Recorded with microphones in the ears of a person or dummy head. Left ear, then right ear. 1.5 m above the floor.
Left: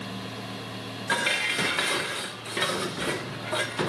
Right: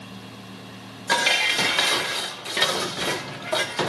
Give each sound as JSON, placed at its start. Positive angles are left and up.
{"t": 1.1, "sound": "dishes clattering", "side_deg": -20, "distance_m": 0.8}